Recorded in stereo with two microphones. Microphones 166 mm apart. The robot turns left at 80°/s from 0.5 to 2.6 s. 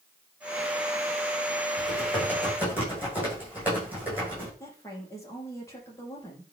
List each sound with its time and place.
1.8 s typing on a keyboard: 55° left, 9 m; by 4.5 s 10° right, 9 m
4.6 s a woman speaking: 20° left (ahead or behind), 4.5 m